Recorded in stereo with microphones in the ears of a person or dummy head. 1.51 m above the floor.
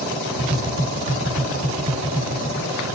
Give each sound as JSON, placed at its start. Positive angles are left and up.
{"t": 0.4, "sound": "tapping", "side_deg": -60, "distance_m": 1.9}